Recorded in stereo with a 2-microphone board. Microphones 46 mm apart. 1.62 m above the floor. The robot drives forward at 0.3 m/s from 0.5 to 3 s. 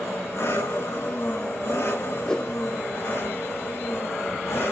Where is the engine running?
75° left (ahead or behind), 5.5 m.